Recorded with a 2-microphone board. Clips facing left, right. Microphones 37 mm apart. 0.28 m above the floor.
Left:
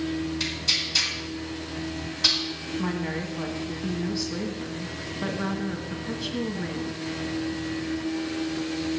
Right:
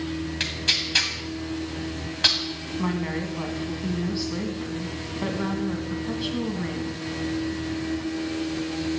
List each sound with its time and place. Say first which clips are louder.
0.4 s tearing paper: right 2 dB; 50° right (ahead or behind), 2.0 m
2.8 s a woman speaking: right 3 dB; 15° right (ahead or behind), 1.9 m